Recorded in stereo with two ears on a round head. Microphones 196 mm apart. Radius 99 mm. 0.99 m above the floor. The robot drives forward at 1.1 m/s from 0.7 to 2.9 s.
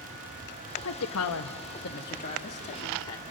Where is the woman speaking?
65° left (ahead or behind), 1.1 m; by 3.2 s 30° left (ahead or behind), 2 m.